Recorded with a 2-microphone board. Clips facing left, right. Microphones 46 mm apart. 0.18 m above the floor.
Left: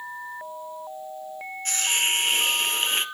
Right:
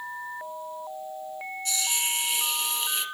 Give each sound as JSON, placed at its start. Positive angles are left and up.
{"t": 1.6, "sound": "a hiss", "side_deg": 55, "distance_m": 0.5}